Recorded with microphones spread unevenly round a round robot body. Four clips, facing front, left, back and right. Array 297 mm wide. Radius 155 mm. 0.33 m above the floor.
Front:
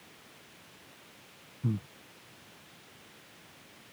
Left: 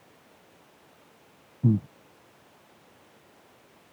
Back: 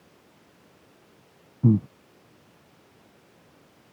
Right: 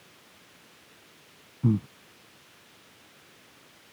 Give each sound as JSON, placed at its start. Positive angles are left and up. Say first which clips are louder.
{"t": 1.6, "sound": "breathing", "louder": "left 1 dB, back 14 dB", "azimuth_deg": 175}